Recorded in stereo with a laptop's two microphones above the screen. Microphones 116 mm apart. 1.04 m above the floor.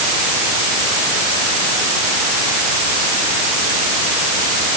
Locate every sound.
Only background noise.